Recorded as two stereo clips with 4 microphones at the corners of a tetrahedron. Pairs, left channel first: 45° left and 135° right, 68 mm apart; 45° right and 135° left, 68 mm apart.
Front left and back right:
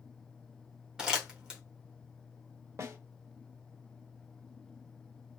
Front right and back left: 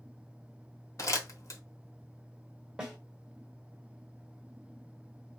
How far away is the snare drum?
About 1.2 m.